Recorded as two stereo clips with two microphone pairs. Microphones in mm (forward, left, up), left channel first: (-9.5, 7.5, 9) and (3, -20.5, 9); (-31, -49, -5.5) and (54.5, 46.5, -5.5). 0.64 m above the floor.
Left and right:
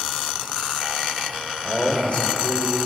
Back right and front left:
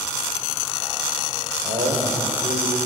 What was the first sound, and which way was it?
A man speaking, 55° left.